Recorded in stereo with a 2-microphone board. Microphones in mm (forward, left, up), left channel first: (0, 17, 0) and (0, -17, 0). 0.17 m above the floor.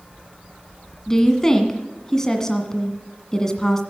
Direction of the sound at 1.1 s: 20° left (ahead or behind).